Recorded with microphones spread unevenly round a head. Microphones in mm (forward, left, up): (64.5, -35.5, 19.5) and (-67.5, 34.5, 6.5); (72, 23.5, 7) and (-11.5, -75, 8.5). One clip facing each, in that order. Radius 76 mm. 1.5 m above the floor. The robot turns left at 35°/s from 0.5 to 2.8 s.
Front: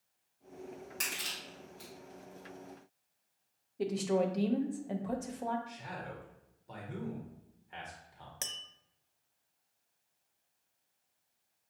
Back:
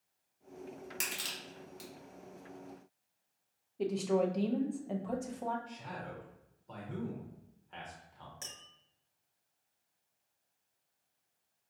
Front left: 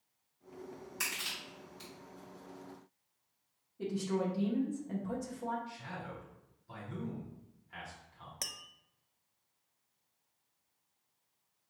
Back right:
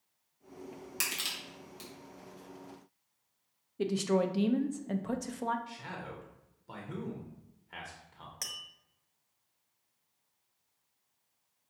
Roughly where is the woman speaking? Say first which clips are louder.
Even, back right 5 dB; behind right.